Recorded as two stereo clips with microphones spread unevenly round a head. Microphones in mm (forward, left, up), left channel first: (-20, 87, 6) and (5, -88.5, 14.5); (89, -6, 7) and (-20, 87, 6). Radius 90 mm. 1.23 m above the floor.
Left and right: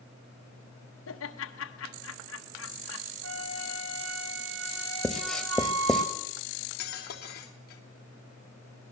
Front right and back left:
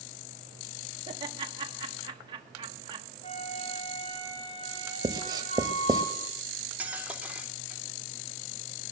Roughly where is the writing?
Behind.